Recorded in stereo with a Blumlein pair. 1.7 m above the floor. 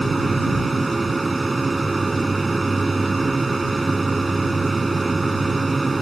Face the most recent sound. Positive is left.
turn(degrees=-10)